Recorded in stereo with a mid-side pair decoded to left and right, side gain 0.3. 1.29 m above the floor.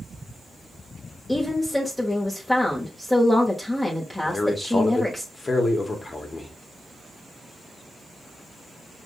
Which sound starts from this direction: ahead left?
A man speaking, at 4.2 s.